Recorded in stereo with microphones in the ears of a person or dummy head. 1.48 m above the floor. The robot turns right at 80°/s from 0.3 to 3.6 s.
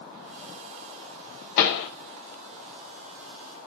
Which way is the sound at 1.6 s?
55° left (ahead or behind).